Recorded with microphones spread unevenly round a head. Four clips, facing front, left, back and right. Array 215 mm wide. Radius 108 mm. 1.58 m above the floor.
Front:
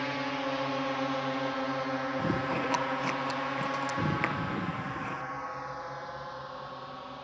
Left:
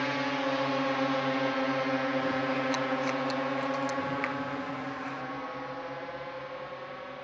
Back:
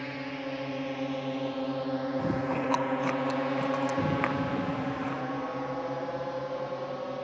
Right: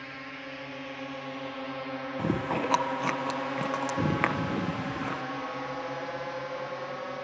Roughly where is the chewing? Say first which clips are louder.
Even, back 1 dB; right.